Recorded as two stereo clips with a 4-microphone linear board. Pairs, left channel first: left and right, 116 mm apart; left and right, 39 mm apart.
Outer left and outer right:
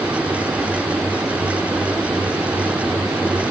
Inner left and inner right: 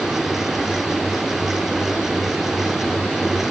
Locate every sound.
Only background noise.